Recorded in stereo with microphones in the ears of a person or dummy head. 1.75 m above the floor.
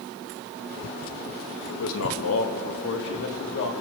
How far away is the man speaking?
About 2 m.